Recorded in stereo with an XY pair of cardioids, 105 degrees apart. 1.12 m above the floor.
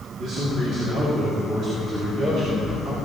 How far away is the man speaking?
About 3.5 m.